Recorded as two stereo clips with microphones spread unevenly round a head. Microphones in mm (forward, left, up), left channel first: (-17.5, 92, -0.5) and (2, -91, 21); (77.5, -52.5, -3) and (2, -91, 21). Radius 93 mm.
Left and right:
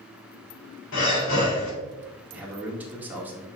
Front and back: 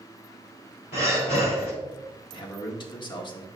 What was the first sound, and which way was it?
Breathing, 75° left.